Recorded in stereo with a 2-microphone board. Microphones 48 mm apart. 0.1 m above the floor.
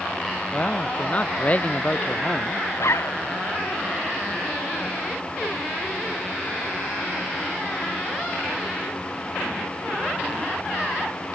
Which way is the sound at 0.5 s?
30° left (ahead or behind).